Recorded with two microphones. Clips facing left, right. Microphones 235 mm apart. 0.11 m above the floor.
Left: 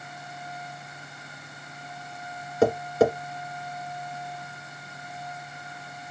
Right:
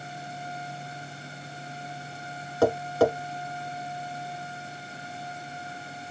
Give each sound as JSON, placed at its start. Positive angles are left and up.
{"t": 2.6, "sound": "tapping", "side_deg": 20, "distance_m": 1.8}